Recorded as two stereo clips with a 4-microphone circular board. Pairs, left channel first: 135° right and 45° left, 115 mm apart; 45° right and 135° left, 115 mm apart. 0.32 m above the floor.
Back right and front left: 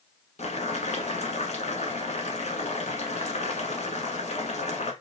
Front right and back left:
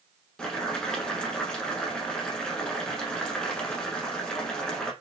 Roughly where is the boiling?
Behind right.